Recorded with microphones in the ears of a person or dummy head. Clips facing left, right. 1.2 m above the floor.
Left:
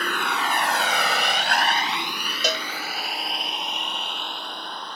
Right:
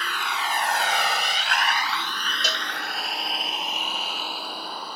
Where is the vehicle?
35° left (ahead or behind); by 5.0 s centre (ahead or behind).